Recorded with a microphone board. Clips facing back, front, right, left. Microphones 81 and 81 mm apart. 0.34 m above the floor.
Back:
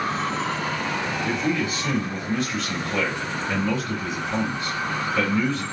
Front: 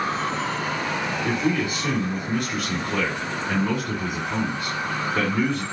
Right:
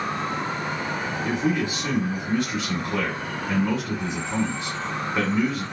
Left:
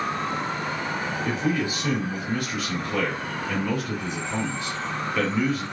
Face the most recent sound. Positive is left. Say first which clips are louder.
# front 2 dB, right 2 dB
turn(degrees=-30)